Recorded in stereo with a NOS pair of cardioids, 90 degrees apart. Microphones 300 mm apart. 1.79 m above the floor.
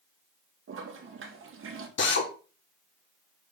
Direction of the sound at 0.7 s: 45° right.